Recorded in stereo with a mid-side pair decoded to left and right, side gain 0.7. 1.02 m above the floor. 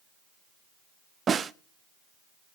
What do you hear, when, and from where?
1.3 s a snare drum: 30° right, 0.6 m